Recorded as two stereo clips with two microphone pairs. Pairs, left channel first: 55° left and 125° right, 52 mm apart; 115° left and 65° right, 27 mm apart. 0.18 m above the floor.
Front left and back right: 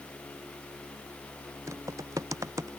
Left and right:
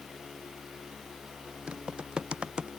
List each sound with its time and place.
1.7 s typing on a keyboard: 120° right